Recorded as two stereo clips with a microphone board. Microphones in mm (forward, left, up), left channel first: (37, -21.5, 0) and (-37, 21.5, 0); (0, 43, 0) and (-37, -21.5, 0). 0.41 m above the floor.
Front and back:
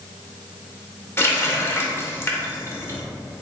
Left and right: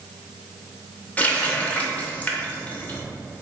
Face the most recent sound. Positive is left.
turn(degrees=5)